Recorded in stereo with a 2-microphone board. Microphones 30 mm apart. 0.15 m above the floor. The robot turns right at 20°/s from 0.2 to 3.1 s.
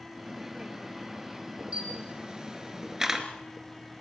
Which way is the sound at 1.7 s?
40° right (ahead or behind).